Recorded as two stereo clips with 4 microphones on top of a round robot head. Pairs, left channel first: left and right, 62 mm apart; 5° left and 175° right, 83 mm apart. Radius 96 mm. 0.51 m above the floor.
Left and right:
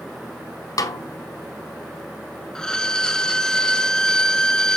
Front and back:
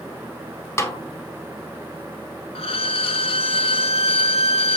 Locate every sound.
0.8 s a snare drum: 65° left, 1.9 m
2.5 s a violin: 10° left, 1.1 m